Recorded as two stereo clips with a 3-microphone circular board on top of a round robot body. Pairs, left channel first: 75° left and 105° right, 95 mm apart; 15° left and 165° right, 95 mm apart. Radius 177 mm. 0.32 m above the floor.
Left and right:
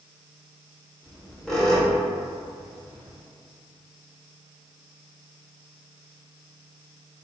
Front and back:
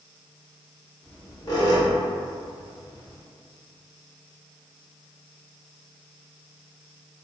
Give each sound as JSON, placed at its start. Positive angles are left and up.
{"t": 1.0, "sound": "a squeak", "azimuth_deg": -10, "distance_m": 1.0}